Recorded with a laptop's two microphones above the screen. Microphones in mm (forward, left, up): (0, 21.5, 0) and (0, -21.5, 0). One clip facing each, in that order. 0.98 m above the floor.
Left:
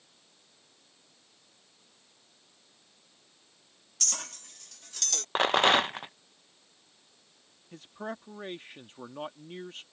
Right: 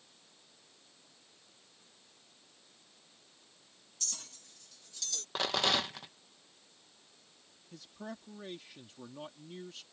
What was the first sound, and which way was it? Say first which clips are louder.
A clink: left 10 dB; 65° left (ahead or behind).